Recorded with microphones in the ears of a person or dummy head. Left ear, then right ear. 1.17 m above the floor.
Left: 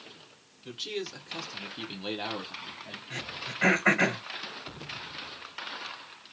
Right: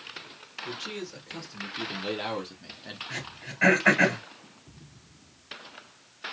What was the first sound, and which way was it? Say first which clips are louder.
A man speaking: left 2 dB; 40° left (ahead or behind).